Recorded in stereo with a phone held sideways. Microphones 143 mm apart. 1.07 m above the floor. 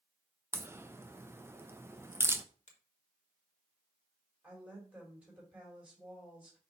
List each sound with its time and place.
0.5 s a crack: 20° right (ahead or behind), 0.5 m
2.7 s a finger snap: 55° left (ahead or behind), 1.6 m
4.4 s a woman speaking: 10° right (ahead or behind), 4 m